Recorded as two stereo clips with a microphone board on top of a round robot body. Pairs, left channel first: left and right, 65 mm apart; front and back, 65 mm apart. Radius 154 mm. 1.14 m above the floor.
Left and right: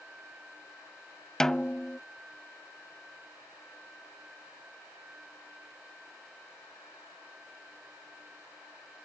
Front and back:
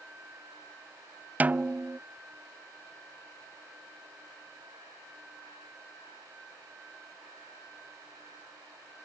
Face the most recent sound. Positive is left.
turn(degrees=160)